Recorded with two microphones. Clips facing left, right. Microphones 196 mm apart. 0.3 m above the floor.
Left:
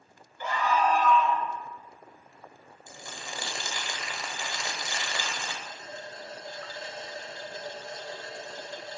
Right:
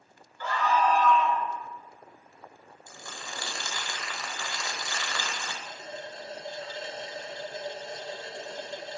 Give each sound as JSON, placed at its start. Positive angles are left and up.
{"t": 0.4, "sound": "a scream", "side_deg": 20, "distance_m": 0.9}
{"t": 2.9, "sound": "crumpling", "side_deg": 20, "distance_m": 0.8}
{"t": 5.6, "sound": "a running tap", "side_deg": -20, "distance_m": 0.5}